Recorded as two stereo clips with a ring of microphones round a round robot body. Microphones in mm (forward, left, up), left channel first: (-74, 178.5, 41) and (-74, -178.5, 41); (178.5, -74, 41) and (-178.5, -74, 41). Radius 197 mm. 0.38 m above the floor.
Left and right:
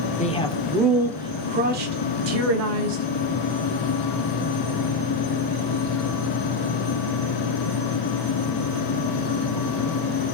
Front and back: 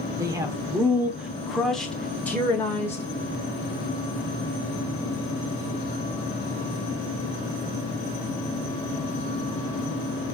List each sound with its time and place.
0.2 s a man speaking: 115° left, 1.1 m; by 3.0 s 80° right, 1.5 m